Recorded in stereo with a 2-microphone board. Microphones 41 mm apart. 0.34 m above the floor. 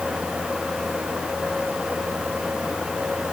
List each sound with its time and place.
Only background noise.